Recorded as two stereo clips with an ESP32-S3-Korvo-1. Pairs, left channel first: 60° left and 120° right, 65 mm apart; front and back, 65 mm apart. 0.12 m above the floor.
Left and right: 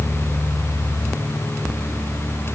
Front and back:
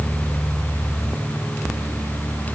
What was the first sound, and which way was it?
Only background noise.